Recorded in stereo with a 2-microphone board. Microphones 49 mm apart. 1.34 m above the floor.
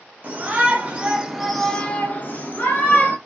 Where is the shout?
35° right (ahead or behind), 1.1 m; by 3.2 s 50° left (ahead or behind), 1.1 m.